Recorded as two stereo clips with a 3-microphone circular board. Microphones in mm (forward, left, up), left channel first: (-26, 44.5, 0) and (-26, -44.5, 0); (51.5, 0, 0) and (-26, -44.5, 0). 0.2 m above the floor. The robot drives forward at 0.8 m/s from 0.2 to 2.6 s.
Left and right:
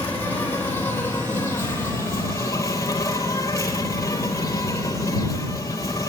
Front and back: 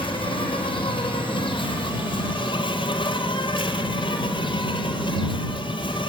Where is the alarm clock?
No alarm clock in this recording.